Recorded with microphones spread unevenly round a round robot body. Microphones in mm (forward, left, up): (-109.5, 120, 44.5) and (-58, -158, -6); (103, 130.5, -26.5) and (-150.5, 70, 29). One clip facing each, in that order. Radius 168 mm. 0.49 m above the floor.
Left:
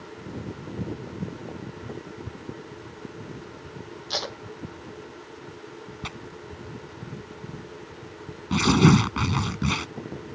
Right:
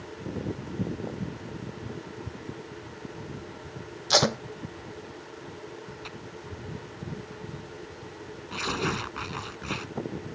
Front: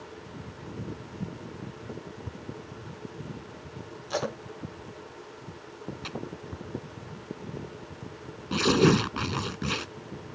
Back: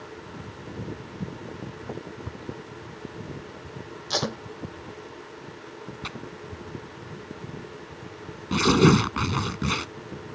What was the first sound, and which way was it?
Tape being pulled, 105° right.